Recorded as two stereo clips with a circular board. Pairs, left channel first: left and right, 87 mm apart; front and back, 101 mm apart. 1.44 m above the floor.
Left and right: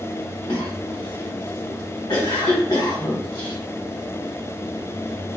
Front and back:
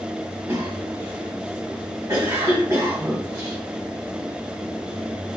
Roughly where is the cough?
Behind left.